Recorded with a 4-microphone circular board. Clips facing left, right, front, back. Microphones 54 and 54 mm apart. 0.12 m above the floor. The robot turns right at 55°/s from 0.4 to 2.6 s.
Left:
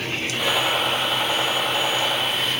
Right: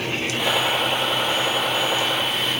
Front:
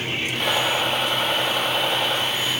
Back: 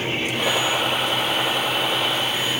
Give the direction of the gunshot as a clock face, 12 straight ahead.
6 o'clock.